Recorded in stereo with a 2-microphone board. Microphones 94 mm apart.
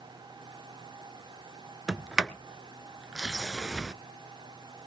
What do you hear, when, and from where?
1.9 s a sliding door: 5° right (ahead or behind), 0.6 m